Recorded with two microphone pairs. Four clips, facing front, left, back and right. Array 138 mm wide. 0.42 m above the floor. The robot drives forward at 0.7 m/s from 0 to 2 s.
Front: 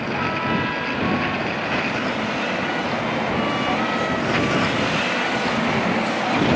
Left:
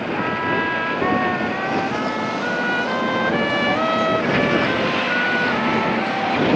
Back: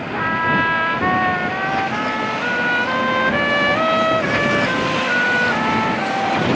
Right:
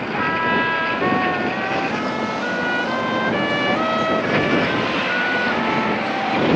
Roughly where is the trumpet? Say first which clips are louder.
Right 3 dB, back 6 dB; behind right.